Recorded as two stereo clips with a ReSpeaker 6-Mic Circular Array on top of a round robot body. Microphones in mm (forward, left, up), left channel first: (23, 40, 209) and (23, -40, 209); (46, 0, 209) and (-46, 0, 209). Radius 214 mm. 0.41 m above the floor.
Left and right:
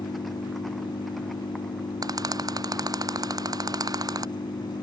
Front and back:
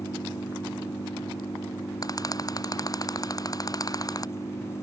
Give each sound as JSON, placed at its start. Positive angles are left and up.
{"t": 0.0, "sound": "an engine running", "azimuth_deg": 60}
{"t": 2.0, "sound": "a rattle", "azimuth_deg": -50}